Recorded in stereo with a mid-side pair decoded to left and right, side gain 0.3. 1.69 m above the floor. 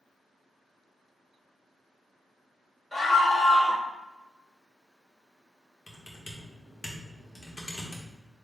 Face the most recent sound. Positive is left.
turn(degrees=30)